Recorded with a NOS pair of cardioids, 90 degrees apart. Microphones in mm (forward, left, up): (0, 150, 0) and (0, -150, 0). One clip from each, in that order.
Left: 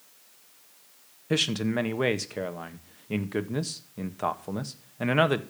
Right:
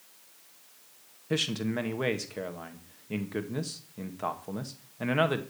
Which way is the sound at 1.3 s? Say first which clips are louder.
Left 4 dB; 25° left.